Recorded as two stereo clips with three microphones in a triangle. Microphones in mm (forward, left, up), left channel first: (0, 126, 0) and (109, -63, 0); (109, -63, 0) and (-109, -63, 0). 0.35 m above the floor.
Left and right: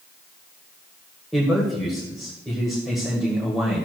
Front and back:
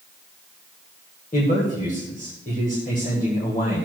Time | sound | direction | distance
1.3 | a man speaking | 30° left | 1.6 m